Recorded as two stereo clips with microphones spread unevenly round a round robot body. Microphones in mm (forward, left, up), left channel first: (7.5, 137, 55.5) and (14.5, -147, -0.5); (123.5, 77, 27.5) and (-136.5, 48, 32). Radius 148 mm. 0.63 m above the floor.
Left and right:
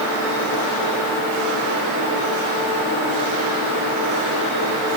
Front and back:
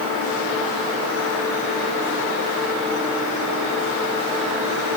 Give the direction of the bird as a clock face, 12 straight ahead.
No bird in this recording.